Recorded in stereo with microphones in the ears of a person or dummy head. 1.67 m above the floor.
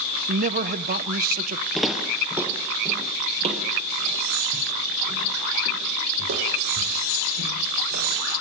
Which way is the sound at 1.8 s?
Centre (ahead or behind).